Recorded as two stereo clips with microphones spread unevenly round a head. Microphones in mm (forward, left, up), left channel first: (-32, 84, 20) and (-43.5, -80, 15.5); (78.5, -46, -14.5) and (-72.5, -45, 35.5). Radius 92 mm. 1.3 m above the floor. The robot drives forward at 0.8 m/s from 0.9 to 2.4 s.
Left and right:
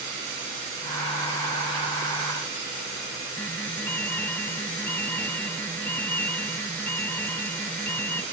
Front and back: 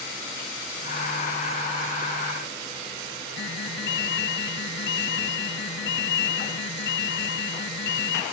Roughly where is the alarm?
Ahead.